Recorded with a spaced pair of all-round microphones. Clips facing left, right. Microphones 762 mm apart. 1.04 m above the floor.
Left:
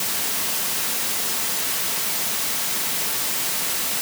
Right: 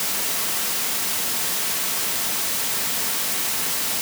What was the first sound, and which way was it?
Only background noise.